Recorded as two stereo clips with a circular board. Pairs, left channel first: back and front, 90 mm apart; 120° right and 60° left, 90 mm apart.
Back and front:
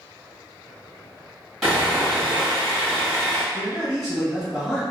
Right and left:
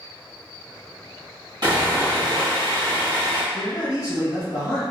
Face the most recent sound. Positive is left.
turn(degrees=-100)